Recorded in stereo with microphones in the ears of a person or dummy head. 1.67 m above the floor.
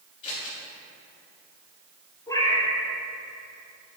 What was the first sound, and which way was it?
Scissors, 35° left (ahead or behind).